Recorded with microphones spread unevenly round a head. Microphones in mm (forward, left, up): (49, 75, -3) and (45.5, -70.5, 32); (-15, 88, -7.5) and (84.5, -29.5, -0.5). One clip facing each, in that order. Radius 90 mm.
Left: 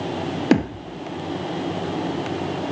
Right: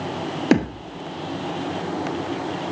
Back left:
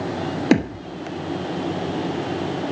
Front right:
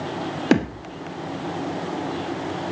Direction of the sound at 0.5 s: 150° right.